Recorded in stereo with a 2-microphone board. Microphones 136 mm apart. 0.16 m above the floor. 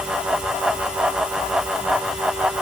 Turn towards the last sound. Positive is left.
No sound to turn to.